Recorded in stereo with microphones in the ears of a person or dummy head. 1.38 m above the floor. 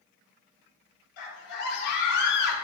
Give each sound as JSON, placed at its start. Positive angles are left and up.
{"t": 1.2, "sound": "a scream", "side_deg": 55, "distance_m": 5.0}